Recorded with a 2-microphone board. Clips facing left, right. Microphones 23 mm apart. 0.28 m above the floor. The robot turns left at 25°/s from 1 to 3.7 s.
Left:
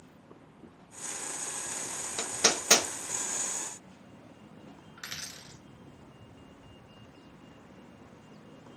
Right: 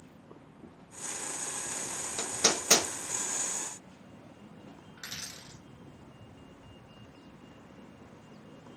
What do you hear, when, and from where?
2.2 s hammering: 20° left (ahead or behind), 0.9 m; by 2.9 s 25° left (ahead or behind), 0.9 m
5.0 s a dropped coin: 75° left (ahead or behind), 1.5 m